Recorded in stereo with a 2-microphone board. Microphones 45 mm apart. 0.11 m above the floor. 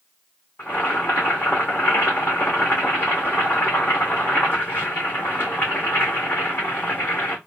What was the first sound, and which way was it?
Boiling, 50° left (ahead or behind).